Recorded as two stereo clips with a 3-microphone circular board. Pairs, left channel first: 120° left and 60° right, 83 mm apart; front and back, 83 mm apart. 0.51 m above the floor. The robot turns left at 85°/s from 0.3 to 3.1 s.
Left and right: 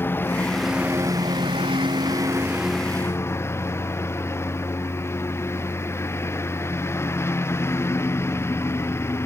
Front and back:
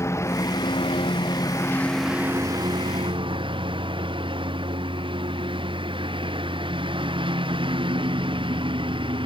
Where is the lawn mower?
55° left; by 9.3 s straight behind.